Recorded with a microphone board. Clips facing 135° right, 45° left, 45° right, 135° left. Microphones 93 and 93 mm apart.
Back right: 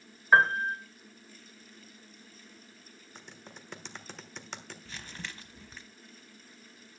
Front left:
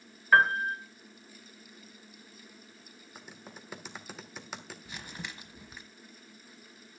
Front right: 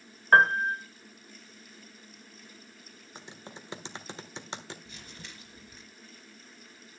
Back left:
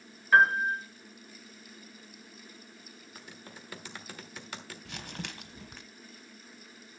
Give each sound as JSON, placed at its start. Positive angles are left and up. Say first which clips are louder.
{"t": 0.3, "sound": "a piano", "louder": "even, front right 1 dB", "azimuth_deg": -65, "distance_m": 1.9}
{"t": 3.1, "sound": "typing on a keyboard", "louder": "front left 2 dB, front right 4 dB", "azimuth_deg": -30, "distance_m": 1.3}
{"t": 4.8, "sound": "crumpling", "louder": "front left 1 dB, back left 7 dB", "azimuth_deg": 120, "distance_m": 1.2}